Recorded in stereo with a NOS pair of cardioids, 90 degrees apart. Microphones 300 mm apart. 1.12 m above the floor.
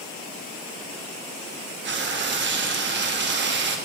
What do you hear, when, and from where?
1.8 s frying: 40° right, 1.2 m